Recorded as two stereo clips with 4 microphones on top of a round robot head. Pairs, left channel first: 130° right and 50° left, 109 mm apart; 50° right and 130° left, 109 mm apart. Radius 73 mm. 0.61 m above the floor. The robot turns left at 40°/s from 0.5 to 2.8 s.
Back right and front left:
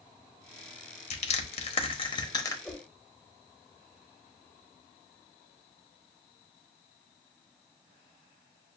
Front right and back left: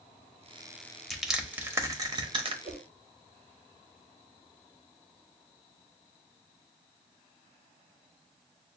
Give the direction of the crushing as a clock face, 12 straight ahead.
5 o'clock.